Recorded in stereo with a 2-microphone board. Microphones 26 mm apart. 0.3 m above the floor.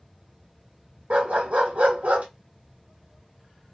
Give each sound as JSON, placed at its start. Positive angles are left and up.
{"t": 1.1, "sound": "a dog barking", "side_deg": -60, "distance_m": 1.3}